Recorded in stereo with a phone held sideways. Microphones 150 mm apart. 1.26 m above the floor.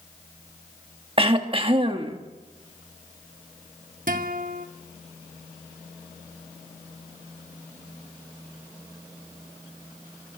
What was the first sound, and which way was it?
Throat clearing, 40° right (ahead or behind).